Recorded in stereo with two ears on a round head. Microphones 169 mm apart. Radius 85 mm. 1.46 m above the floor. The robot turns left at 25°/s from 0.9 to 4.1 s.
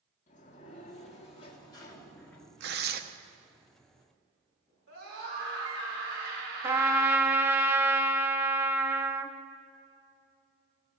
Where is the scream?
80° right, 5 m.